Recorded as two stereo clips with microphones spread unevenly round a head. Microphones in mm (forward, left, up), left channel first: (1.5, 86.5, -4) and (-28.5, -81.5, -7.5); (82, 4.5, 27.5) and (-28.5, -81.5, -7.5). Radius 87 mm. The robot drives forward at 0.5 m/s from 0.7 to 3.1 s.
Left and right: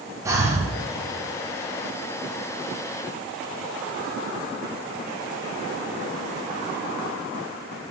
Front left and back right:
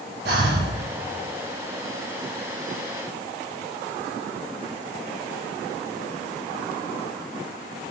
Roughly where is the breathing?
Behind.